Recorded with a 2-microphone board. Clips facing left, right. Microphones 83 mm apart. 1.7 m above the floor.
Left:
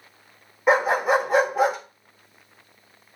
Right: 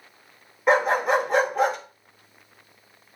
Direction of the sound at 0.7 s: 5° left (ahead or behind).